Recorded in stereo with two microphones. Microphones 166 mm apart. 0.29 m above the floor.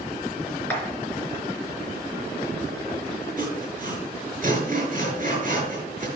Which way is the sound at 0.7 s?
10° left (ahead or behind).